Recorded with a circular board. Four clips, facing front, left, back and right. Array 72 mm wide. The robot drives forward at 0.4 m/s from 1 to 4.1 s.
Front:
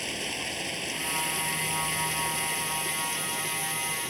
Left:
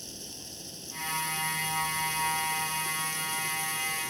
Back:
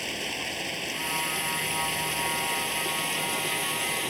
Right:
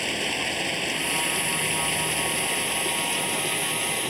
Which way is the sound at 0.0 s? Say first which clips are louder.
Right 19 dB, back 1 dB; 95° right.